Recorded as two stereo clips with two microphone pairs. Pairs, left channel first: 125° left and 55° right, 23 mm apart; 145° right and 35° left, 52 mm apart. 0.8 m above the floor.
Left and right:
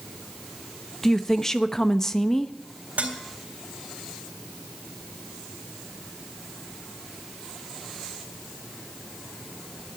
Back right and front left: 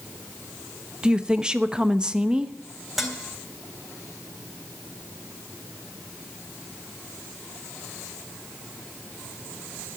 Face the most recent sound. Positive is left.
turn(degrees=-50)